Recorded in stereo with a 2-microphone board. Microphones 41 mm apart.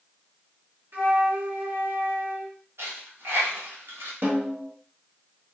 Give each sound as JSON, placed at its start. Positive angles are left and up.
{"t": 0.9, "sound": "a flute", "side_deg": -65, "distance_m": 1.4}
{"t": 2.8, "sound": "a dropped coin", "side_deg": -75, "distance_m": 1.4}
{"t": 4.2, "sound": "a snare drum", "side_deg": -65, "distance_m": 0.9}